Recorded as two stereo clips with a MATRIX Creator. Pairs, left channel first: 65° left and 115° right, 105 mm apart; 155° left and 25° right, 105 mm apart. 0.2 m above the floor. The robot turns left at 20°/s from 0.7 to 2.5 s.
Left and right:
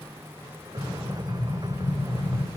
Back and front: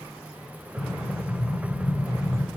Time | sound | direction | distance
0.8 | an explosion | 150° left | 1.3 m